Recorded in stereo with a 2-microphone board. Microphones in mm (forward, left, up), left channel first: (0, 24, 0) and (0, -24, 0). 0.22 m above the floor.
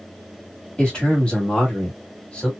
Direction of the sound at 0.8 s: 20° left (ahead or behind).